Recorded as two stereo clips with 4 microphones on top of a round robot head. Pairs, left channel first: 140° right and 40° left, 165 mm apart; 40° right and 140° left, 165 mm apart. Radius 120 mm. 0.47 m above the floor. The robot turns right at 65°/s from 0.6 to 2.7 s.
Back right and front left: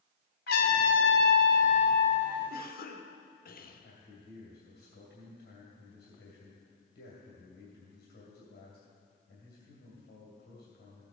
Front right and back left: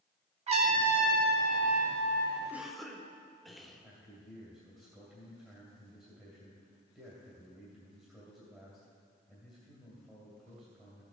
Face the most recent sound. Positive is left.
turn(degrees=-145)